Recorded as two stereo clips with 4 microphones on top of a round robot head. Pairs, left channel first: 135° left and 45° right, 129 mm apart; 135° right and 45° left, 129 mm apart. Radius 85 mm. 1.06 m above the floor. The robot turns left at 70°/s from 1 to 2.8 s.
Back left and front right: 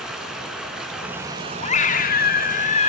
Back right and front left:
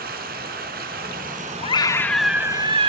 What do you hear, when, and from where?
0.0 s running water: 40° left, 4.5 m; by 2.9 s 85° right, 4.5 m
1.6 s a scream: 175° left, 2.5 m; by 2.9 s 95° left, 2.5 m